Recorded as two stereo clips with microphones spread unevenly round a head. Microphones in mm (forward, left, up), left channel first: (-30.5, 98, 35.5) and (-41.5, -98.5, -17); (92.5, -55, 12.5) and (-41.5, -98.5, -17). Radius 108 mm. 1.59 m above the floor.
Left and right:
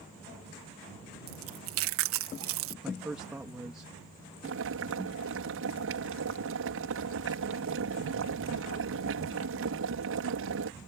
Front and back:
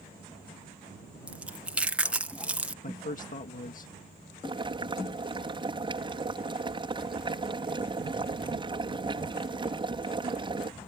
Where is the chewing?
80° right.